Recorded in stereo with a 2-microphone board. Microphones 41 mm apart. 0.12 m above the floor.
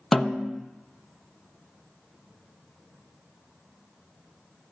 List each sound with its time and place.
0.1 s a snare drum: 10° left (ahead or behind), 0.7 m